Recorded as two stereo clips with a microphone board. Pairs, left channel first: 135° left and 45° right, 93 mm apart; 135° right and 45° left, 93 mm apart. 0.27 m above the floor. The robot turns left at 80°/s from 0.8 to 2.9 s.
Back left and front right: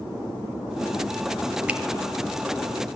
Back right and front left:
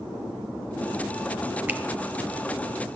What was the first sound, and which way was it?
A finger snap, 10° left.